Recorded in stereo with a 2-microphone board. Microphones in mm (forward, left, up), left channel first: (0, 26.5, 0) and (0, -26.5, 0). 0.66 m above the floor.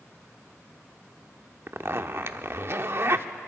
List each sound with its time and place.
1.7 s a zipper: 50° right (ahead or behind), 0.6 m